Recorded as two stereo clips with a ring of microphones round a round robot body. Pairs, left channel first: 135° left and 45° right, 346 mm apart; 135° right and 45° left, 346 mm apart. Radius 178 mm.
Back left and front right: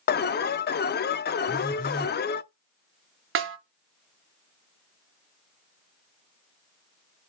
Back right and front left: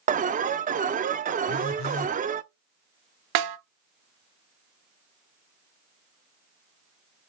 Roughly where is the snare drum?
Ahead.